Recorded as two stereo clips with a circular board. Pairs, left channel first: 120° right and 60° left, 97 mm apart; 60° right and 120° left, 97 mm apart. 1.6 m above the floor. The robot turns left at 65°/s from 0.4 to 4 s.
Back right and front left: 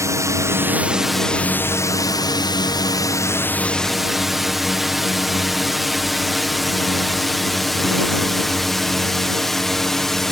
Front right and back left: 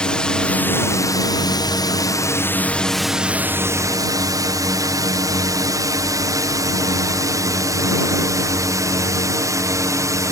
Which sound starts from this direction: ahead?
A drone, at 0.0 s.